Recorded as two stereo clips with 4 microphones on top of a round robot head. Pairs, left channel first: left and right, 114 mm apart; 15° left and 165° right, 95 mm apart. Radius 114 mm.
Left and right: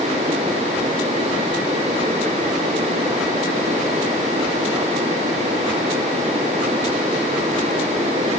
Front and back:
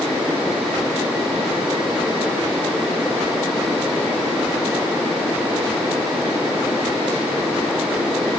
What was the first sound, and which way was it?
Only background noise.